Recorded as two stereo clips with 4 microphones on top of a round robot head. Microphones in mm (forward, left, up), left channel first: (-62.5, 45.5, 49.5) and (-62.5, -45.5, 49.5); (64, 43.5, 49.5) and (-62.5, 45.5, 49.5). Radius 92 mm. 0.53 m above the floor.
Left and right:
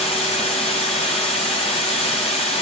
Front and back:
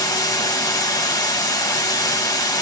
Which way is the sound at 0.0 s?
60° left.